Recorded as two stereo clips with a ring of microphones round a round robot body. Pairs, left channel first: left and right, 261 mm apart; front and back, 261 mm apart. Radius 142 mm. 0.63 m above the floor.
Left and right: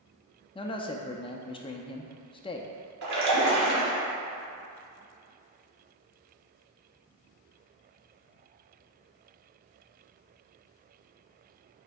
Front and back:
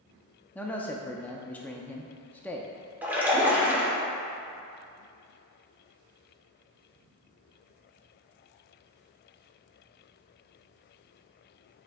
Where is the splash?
100° right, 1.9 m.